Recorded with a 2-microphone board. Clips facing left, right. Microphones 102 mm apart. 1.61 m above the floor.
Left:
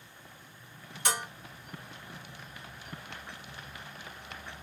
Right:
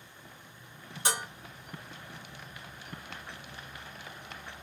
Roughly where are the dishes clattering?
Right.